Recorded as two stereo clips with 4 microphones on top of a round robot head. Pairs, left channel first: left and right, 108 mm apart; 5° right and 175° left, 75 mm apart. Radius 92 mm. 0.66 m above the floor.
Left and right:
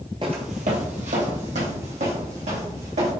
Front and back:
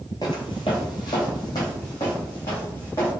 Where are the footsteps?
50° right, 0.7 m; by 3.1 s 60° right, 3.5 m.